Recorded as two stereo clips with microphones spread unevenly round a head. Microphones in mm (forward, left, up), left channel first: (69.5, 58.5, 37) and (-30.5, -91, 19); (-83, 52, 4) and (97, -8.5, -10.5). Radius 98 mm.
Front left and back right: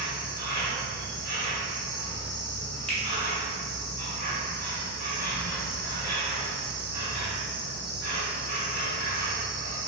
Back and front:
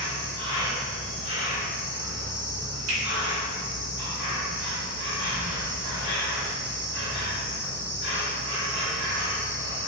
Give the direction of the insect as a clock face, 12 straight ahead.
6 o'clock.